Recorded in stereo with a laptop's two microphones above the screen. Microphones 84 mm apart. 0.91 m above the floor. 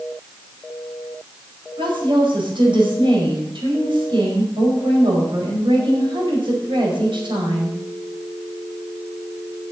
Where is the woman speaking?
85° right, 4.5 m.